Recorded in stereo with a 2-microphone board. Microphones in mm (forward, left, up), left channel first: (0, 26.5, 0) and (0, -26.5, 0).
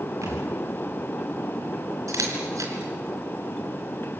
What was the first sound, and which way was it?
A thud, 75° right (ahead or behind).